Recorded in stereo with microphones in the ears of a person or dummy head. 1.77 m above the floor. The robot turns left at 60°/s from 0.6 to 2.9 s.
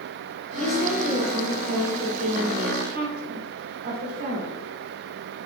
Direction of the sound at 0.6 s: 5° left.